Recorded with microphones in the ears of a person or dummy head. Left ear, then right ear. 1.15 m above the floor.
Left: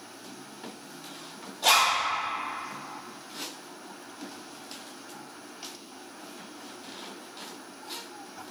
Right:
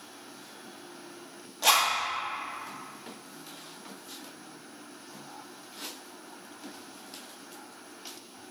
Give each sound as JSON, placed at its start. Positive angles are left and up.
{"t": 1.6, "sound": "a zipper", "side_deg": -60, "distance_m": 1.1}